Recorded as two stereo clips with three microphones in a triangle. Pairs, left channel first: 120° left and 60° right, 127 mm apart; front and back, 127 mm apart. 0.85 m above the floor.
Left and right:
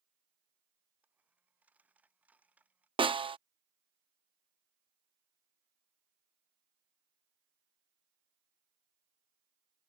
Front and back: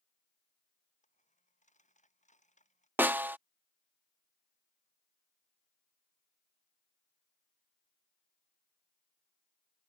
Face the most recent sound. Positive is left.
turn(degrees=-105)